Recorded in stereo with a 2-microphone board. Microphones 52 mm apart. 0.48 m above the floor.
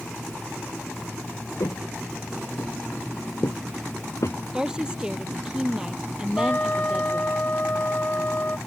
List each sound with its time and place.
1.6 s footsteps: 80° left; by 4.4 s 60° left (ahead or behind)
4.5 s a woman speaking: 15° right (ahead or behind)
6.4 s a trumpet: 35° left (ahead or behind)